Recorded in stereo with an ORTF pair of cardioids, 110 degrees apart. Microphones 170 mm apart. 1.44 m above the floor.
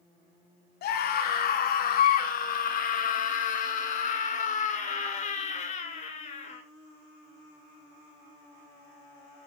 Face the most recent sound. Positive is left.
turn(degrees=40)